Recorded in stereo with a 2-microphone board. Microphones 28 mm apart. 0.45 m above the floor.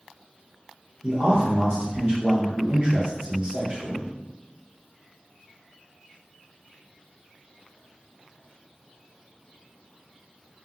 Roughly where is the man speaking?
Right.